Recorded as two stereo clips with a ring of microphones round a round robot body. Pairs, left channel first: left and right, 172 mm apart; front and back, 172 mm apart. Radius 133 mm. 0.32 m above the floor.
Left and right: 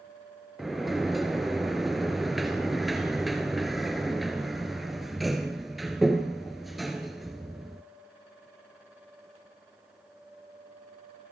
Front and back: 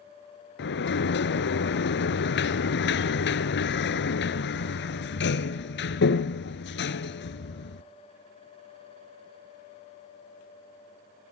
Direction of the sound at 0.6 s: Straight ahead.